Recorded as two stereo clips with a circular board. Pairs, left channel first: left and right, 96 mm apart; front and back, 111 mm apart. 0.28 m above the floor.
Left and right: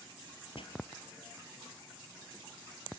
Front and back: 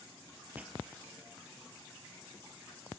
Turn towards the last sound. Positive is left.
turn(degrees=105)